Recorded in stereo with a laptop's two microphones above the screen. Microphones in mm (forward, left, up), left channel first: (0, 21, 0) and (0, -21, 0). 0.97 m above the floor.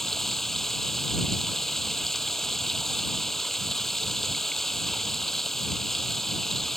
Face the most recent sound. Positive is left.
turn(degrees=5)  # may be behind; listen again after turning